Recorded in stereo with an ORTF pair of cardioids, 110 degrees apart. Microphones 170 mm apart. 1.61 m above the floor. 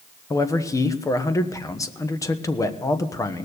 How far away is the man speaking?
About 1.2 m.